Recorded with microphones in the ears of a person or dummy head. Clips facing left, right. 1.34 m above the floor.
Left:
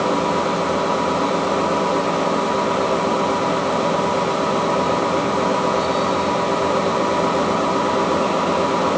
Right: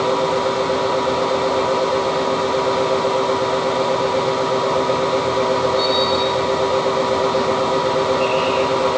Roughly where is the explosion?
No explosion in this recording.